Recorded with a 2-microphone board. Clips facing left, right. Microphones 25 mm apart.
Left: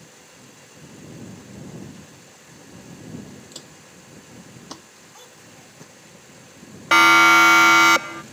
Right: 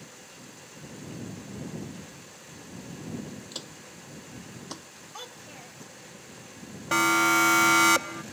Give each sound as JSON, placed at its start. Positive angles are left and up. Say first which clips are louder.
{"t": 3.5, "sound": "footsteps", "louder": "right 1 dB", "side_deg": -15}
{"t": 5.1, "sound": "a child speaking", "louder": "right 5 dB", "side_deg": -35}
{"t": 6.9, "sound": "a siren", "louder": "left 10 dB", "side_deg": 60}